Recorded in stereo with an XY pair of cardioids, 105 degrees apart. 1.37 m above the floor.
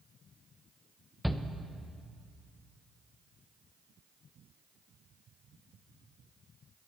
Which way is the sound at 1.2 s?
Straight ahead.